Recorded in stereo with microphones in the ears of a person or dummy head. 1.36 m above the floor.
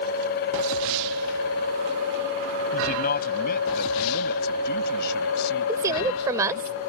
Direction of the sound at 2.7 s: 45° left (ahead or behind).